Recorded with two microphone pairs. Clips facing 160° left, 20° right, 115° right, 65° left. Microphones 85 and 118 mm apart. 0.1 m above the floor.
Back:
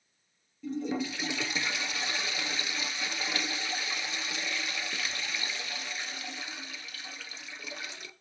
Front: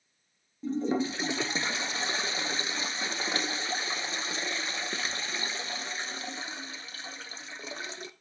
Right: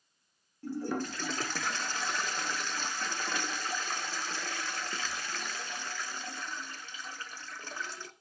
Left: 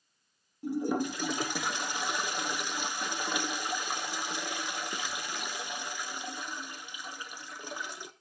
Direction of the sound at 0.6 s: Straight ahead.